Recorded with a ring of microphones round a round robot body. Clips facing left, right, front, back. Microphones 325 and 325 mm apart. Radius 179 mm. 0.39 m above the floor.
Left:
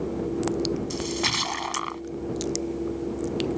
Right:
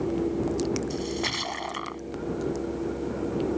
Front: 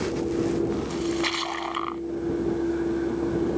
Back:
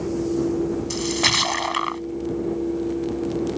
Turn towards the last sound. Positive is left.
turn(degrees=160)